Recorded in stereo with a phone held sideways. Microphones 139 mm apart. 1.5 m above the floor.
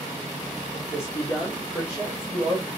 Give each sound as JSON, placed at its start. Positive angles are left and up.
{"t": 0.7, "sound": "a man speaking", "side_deg": 20, "distance_m": 4.0}